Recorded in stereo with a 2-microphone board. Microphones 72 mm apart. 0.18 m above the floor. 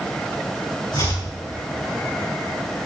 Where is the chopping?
80° left, 7 m.